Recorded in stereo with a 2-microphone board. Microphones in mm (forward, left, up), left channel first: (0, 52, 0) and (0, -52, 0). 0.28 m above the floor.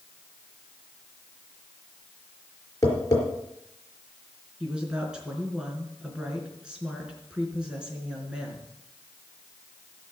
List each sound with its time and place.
2.8 s tapping: 35° left (ahead or behind), 4.5 m
4.6 s a woman speaking: 10° right (ahead or behind), 4.5 m